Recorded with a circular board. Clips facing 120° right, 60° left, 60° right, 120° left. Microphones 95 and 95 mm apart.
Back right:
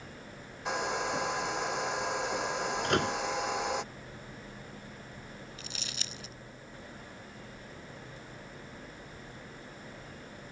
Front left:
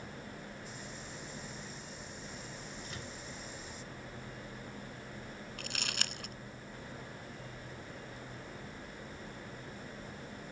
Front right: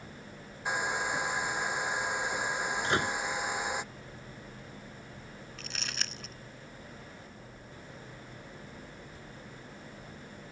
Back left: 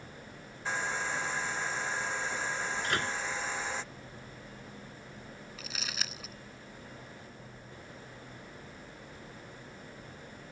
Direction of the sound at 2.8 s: 125° right.